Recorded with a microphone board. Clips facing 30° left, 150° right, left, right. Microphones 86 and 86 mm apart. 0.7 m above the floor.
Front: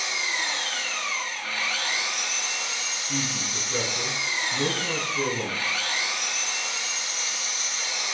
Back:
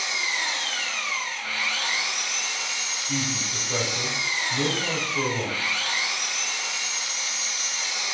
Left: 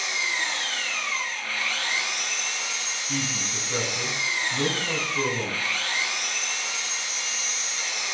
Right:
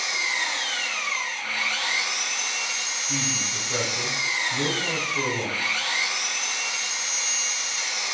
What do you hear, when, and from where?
0.0 s an engine running: 15° right, 1.2 m
3.1 s a man speaking: 165° right, 1.6 m